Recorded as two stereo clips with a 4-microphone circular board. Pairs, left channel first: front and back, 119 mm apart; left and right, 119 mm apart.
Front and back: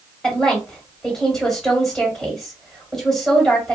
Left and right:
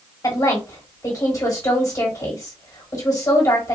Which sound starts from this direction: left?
A woman speaking, at 0.2 s.